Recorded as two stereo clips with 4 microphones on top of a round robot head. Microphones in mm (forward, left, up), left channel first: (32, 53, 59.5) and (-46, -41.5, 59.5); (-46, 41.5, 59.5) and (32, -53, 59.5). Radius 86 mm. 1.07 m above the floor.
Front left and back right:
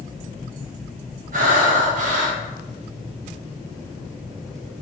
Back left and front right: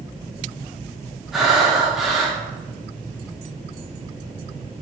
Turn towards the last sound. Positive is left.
turn(degrees=-140)